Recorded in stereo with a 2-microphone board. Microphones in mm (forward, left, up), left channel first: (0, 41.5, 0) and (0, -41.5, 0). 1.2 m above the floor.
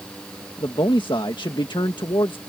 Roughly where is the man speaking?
Left.